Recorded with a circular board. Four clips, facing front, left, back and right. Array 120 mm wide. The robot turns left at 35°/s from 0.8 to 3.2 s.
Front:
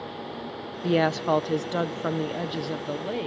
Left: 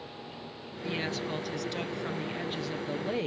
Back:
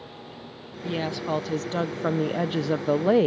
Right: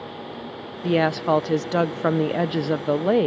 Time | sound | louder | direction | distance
0.8 | a woman speaking | right 14 dB, front 6 dB | 55° right | ?